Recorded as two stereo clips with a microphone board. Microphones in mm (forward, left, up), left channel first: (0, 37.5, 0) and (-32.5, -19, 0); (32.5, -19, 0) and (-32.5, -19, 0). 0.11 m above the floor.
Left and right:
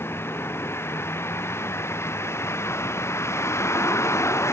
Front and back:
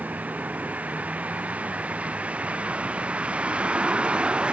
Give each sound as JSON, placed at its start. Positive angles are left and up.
{"t": 0.0, "sound": "a vehicle", "azimuth_deg": 115}